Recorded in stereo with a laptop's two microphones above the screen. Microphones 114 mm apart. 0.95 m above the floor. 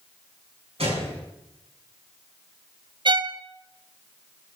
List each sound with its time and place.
0.8 s a gunshot: 60° right (ahead or behind), 6 m
3.0 s a violin: 45° right (ahead or behind), 0.5 m